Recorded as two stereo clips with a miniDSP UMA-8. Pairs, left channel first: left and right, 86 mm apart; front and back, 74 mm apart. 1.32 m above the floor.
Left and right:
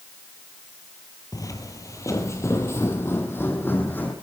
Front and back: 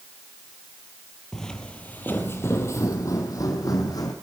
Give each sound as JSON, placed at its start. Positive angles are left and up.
{"t": 1.3, "sound": "footsteps", "azimuth_deg": 80, "distance_m": 1.7}